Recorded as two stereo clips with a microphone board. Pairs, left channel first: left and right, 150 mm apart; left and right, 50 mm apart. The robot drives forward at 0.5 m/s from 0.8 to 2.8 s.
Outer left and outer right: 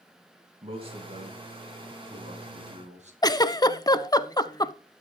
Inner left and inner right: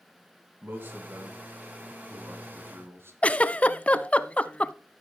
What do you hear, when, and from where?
0.6 s a man speaking: 40° right (ahead or behind), 3.5 m; by 3.1 s 50° right (ahead or behind), 3 m
3.2 s a giggle: 25° left (ahead or behind), 0.5 m